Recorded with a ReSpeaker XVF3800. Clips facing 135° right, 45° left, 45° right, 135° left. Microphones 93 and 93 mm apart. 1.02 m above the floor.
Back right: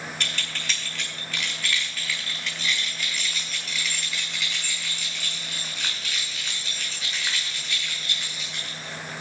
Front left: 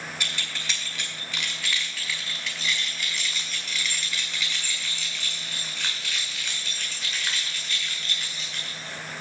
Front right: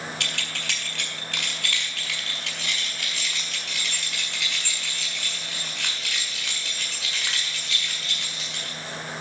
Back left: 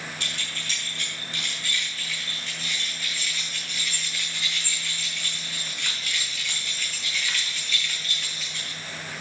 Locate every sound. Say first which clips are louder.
0.2 s keys jangling: back right 1 dB, front right 3 dB; 40° right, 3.5 m; by 9.2 s 60° right, 8 m